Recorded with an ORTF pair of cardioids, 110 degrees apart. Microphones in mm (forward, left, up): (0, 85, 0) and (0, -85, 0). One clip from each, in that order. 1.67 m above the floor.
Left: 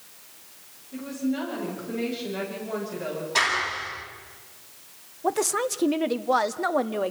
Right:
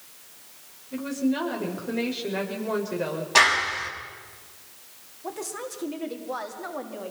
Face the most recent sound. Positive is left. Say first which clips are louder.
# left 10 dB
turn(degrees=55)